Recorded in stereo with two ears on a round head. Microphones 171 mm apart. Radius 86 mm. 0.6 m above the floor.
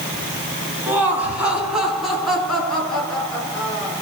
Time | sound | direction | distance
0.9 | laughter | 10° right (ahead or behind) | 5 m